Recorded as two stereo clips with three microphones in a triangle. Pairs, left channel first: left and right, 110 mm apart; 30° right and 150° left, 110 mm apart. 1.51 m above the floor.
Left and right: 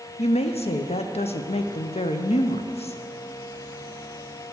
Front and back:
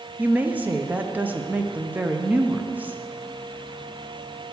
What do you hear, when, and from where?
0.2 s a woman speaking: 75° left, 0.6 m